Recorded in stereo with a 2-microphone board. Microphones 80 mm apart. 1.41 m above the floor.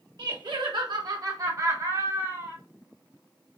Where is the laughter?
65° right (ahead or behind), 1.2 m; by 2.6 s 25° right (ahead or behind), 3 m.